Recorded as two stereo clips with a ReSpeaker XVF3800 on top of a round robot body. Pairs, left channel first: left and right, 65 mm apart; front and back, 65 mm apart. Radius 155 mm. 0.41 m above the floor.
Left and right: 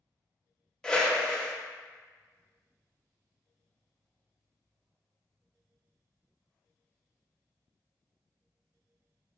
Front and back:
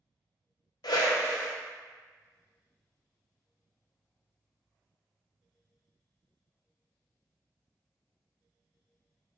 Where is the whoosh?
10° left, 0.7 m.